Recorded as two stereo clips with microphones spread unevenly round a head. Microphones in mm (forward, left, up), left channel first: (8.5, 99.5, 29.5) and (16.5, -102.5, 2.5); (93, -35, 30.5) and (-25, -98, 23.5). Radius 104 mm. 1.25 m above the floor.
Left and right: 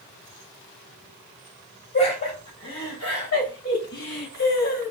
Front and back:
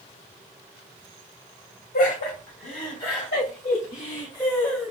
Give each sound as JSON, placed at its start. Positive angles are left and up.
{"t": 1.9, "sound": "laughter", "azimuth_deg": 35, "distance_m": 2.0}